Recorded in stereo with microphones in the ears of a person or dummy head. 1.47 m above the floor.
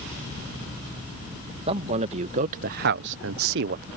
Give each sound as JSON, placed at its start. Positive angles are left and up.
{"t": 1.7, "sound": "a man speaking", "side_deg": -30}